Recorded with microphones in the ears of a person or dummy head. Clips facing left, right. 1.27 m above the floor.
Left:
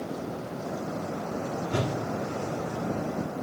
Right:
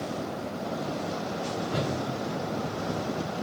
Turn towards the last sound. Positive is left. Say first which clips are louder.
# left 1 dB
turn(degrees=40)  # may be behind; listen again after turning